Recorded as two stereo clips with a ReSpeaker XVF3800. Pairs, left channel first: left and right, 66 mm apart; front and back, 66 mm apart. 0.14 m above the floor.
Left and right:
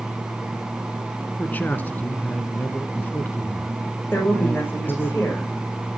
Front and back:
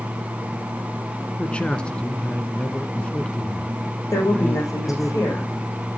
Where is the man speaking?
55° left, 1.2 m.